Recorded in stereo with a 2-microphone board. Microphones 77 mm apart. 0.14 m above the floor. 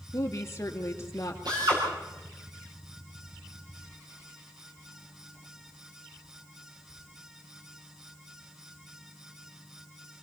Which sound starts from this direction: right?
A drill, at 1.4 s.